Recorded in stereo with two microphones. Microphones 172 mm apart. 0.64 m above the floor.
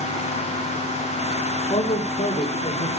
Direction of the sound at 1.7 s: 40° left (ahead or behind).